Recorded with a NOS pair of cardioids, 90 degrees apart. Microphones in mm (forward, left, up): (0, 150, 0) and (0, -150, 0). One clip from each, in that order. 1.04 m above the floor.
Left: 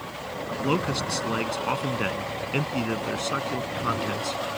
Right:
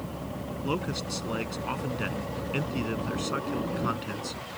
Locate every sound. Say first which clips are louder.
0.6 s a man speaking: left 6 dB; 40° left; by 4.6 s 25° left